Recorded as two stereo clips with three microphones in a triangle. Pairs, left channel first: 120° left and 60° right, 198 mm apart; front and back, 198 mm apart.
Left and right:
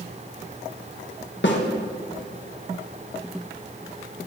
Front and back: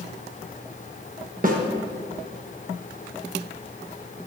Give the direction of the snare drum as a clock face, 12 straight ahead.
7 o'clock.